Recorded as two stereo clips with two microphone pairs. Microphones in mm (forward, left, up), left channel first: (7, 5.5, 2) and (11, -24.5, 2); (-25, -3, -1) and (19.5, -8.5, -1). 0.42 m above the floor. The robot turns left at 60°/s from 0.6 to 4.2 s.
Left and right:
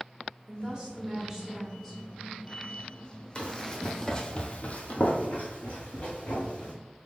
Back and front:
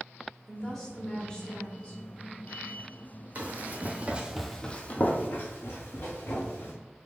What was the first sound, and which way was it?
A woman speaking, 105° right.